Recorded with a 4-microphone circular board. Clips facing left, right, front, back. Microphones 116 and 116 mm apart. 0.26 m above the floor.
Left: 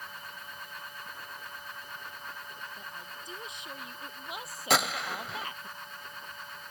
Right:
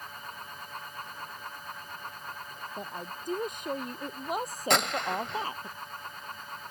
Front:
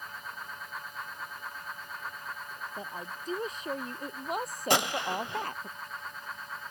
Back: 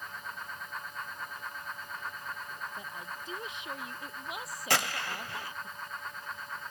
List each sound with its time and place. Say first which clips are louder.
2.8 s a woman speaking: right 6 dB, front 2 dB; 55° right; by 5.7 s 30° right
4.7 s a gunshot: right 1 dB, front 4 dB; 5° left